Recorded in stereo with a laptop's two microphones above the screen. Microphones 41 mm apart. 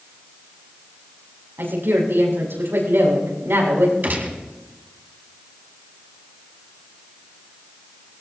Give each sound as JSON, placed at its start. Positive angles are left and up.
{"t": 1.6, "sound": "a woman speaking", "side_deg": -75, "distance_m": 7.5}
{"t": 4.0, "sound": "a gunshot", "side_deg": -55, "distance_m": 1.9}